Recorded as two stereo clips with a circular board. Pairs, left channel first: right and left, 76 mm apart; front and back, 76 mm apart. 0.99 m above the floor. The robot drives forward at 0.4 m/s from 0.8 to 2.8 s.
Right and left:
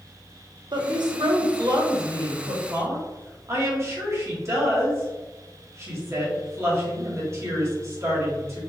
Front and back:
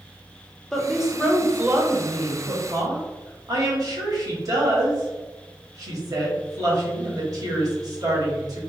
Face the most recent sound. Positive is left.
turn(degrees=145)